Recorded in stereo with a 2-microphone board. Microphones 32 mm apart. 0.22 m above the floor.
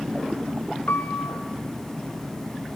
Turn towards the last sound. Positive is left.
turn(degrees=70)  # may be behind; listen again after turning